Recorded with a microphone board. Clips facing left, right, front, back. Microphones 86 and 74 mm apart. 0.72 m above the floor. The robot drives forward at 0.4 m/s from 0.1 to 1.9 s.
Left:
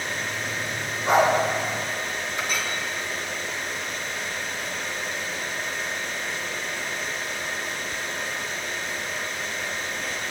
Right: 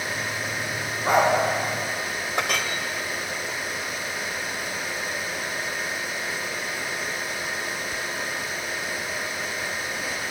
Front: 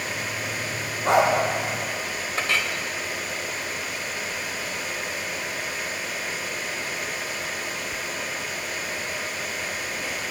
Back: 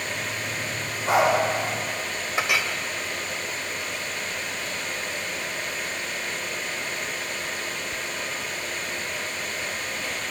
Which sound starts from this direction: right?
A clink, at 2.4 s.